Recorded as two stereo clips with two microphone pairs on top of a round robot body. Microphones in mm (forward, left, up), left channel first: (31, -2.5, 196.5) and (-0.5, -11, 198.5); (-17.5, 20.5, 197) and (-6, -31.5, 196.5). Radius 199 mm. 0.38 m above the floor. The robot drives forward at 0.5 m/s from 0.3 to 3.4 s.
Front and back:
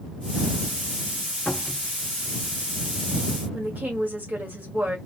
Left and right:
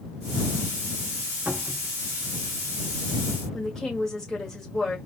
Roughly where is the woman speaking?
Behind.